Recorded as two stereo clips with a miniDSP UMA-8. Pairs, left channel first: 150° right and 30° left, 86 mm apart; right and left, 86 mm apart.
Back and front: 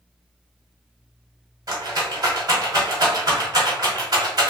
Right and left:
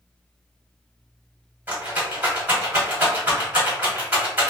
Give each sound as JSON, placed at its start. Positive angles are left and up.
{"t": 1.7, "sound": "a rattle", "azimuth_deg": 25, "distance_m": 1.3}